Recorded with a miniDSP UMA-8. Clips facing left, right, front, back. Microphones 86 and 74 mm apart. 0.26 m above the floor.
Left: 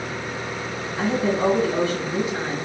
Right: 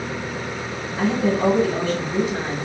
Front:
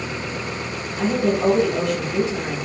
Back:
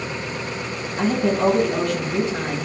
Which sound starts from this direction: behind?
A woman speaking, at 1.0 s.